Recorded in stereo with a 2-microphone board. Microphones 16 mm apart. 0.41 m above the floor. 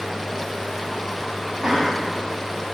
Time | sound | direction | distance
1.6 | laughter | 65° right (ahead or behind) | 4 m